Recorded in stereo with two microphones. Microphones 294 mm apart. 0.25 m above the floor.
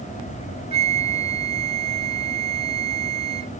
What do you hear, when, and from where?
0.7 s a flute: 20° right (ahead or behind)